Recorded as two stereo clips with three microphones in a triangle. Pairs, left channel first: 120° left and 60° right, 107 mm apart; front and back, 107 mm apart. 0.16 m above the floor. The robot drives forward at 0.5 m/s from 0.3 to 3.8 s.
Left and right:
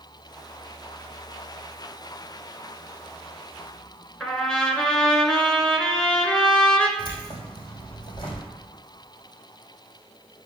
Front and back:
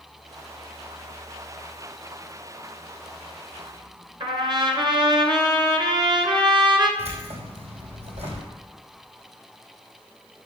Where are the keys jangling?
165° left, 4.5 m.